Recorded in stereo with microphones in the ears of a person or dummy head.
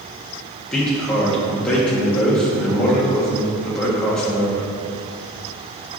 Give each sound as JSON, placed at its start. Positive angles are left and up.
{"t": 0.7, "sound": "a man speaking", "side_deg": 10, "distance_m": 1.7}